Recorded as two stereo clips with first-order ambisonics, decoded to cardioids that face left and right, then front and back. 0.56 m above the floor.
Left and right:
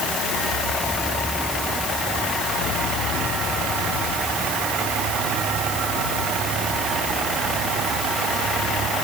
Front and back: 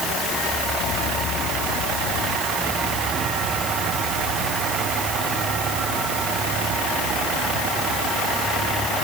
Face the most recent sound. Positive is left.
No sound to turn to.